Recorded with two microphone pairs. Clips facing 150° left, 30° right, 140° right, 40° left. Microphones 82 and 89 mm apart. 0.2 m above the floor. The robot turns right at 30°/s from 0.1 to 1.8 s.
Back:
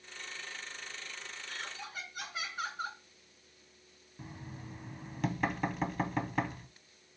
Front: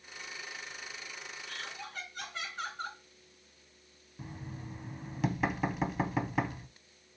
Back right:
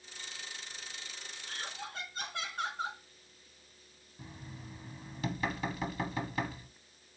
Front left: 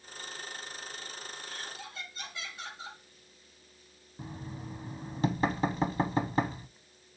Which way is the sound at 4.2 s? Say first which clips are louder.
Front 2 dB, front left 7 dB; 55° left.